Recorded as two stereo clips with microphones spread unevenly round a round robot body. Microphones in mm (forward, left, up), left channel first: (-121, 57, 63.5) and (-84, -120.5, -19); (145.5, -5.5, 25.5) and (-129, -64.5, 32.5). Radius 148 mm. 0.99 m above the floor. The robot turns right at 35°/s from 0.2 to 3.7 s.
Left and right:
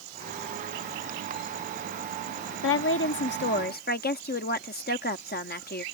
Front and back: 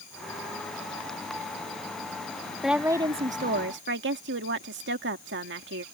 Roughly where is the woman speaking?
Left.